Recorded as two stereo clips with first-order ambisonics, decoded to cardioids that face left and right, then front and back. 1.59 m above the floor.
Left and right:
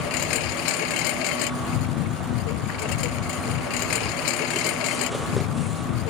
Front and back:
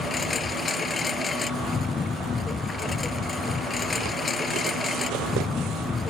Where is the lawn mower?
75° left.